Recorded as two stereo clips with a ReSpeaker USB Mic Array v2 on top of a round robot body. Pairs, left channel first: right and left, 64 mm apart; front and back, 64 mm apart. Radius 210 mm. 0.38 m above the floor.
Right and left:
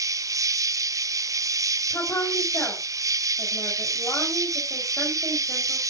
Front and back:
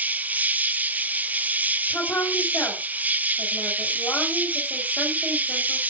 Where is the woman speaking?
55° right, 3.5 m.